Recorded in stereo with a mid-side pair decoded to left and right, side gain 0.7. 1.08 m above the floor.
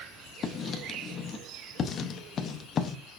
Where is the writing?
40° left, 0.6 m.